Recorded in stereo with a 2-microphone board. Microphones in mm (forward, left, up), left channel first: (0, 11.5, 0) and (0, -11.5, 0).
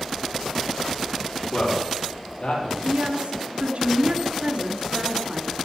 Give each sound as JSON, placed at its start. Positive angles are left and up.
{"t": 1.5, "sound": "a man speaking", "side_deg": 75, "distance_m": 7.0}
{"t": 2.8, "sound": "a woman speaking", "side_deg": -50, "distance_m": 2.5}